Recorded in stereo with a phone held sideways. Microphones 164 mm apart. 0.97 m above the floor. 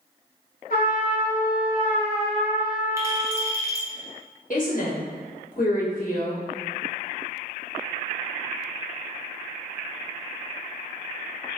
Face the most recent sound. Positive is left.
turn(degrees=55)  # may be behind; listen again after turning